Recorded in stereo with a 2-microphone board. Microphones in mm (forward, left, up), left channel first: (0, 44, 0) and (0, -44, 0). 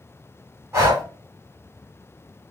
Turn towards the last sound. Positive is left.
turn(degrees=-30)  # may be behind; listen again after turning